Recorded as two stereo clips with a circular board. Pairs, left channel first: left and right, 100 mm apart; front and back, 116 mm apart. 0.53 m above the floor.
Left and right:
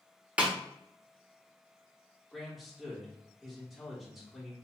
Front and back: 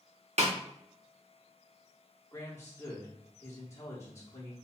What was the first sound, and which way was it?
A snare drum, 165° right.